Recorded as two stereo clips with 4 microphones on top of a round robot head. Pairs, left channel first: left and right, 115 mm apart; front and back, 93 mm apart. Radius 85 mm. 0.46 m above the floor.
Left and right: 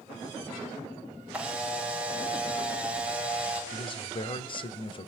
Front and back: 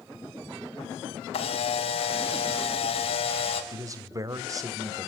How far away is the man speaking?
About 2 m.